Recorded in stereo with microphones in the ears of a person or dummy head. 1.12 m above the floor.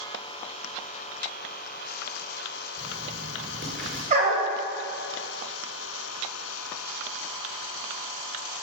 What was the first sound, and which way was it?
Writing, centre (ahead or behind).